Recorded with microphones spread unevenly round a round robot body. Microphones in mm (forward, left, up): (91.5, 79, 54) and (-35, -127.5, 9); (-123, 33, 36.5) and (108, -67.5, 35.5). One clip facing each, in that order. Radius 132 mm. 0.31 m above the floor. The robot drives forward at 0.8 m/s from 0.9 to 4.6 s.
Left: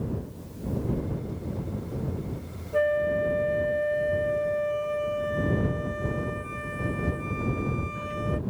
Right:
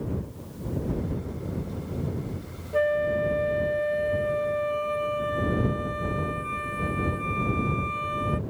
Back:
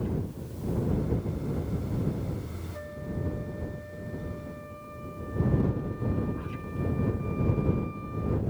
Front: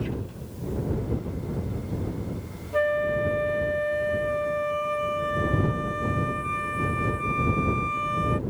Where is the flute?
30° right; by 8.4 s 35° right.